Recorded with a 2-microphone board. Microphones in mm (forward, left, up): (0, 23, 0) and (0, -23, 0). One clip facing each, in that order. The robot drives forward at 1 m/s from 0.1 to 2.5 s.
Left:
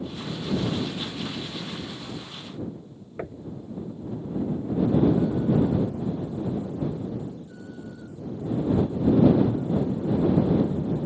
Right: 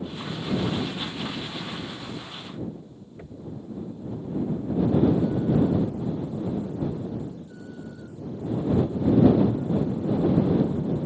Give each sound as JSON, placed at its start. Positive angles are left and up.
{"t": 3.2, "sound": "knocking", "side_deg": 60}